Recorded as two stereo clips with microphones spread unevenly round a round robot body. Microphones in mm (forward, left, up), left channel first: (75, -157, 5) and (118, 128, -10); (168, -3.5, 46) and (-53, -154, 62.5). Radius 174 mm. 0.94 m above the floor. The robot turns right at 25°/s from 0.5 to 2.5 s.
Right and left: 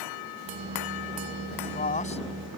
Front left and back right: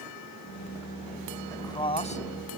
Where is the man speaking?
45° right; by 2.5 s 20° right.